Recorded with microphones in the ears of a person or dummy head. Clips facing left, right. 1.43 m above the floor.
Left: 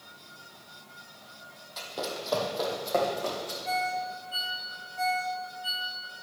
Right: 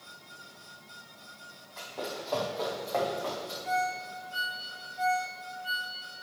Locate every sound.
1.8 s running footsteps: 55° left (ahead or behind), 2.5 m; by 3.5 s 50° left (ahead or behind), 3.5 m
3.6 s a ringtone: 60° left (ahead or behind), 2.5 m